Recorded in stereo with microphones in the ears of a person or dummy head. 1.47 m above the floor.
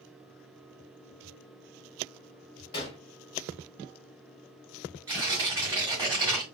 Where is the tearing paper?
20° right (ahead or behind), 2 m.